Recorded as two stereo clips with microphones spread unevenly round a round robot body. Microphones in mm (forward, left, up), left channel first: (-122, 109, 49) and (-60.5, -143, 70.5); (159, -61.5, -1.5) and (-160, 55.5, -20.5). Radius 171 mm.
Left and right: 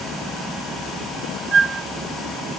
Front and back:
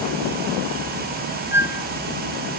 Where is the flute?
115° right.